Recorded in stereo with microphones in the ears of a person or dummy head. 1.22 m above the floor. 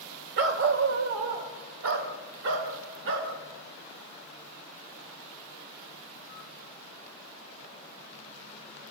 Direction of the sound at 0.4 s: 70° right (ahead or behind).